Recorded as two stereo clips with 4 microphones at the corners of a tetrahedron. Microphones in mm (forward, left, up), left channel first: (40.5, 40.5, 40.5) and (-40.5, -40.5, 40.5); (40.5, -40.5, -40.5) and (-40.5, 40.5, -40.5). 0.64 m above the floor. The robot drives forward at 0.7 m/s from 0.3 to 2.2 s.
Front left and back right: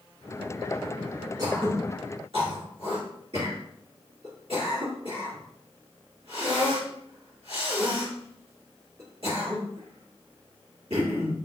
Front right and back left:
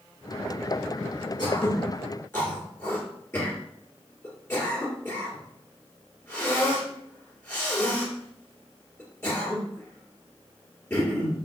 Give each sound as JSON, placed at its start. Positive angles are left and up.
{"t": 1.4, "sound": "throat clearing", "azimuth_deg": -90, "distance_m": 1.3}